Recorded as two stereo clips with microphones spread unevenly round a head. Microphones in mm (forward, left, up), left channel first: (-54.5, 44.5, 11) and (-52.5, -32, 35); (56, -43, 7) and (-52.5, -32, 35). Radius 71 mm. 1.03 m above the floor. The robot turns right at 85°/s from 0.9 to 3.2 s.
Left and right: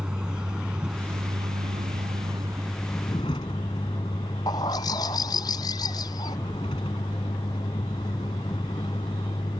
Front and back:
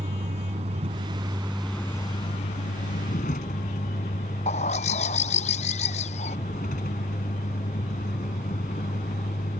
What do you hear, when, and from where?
0.0 s a vehicle: 165° right; by 9.6 s 30° left
4.5 s a bird: 35° left